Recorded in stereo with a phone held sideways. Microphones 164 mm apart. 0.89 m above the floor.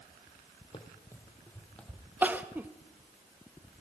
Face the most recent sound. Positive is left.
turn(degrees=-10)  # may be behind; listen again after turning